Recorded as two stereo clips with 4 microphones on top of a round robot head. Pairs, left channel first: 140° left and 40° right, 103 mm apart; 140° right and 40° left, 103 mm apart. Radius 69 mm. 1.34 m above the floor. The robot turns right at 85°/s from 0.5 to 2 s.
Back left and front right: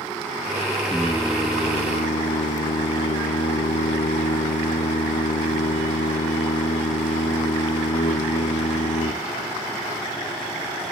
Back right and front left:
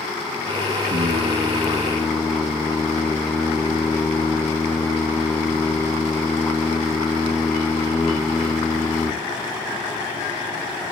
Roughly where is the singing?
Ahead left.